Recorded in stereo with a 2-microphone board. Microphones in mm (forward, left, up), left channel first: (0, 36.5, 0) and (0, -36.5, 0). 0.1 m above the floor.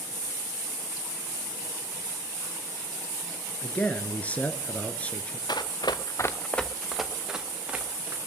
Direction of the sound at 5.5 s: 75° left (ahead or behind).